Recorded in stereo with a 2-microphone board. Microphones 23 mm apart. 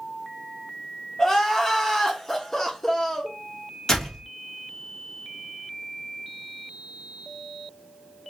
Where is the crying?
20° left (ahead or behind), 1.1 m.